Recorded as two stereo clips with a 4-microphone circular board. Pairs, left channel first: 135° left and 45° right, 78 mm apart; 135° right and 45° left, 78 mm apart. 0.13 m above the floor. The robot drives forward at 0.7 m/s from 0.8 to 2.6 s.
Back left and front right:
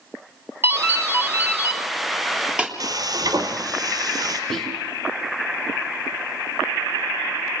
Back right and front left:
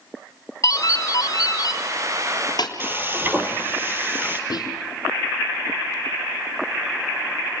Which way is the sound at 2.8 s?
15° right.